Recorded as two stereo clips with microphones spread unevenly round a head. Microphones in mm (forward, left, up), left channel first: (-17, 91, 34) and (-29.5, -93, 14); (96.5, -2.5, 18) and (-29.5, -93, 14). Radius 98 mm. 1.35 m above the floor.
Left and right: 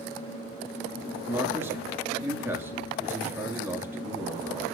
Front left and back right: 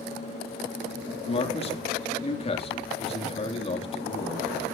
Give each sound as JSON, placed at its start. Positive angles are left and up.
{"t": 1.3, "sound": "a man speaking", "azimuth_deg": -15, "distance_m": 3.5}